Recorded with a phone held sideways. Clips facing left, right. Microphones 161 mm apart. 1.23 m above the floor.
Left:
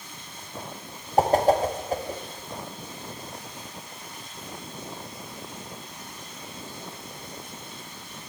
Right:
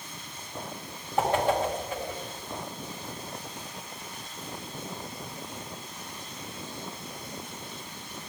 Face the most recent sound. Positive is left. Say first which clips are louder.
# left 5 dB
turn(degrees=40)  # may be behind; listen again after turning